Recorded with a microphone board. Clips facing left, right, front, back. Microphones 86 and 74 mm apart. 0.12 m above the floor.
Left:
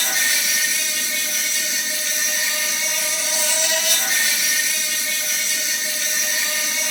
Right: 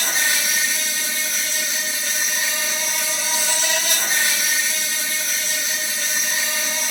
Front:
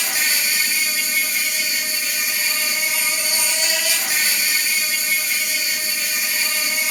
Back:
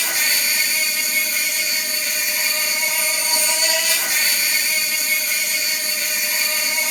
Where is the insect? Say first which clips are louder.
Right 1 dB, even; 140° right, 1.8 m.